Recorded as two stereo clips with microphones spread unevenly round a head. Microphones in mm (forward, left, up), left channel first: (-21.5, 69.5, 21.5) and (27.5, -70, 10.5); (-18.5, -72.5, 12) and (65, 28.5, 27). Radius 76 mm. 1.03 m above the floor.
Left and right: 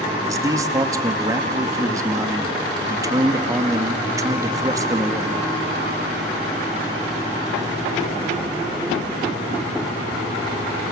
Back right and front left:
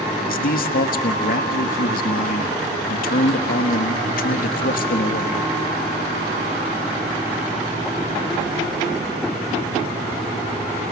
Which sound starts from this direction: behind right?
A man speaking, at 0.2 s.